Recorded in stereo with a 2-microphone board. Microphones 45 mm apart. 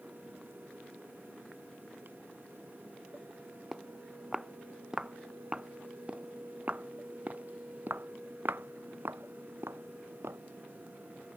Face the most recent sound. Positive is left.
turn(degrees=-80)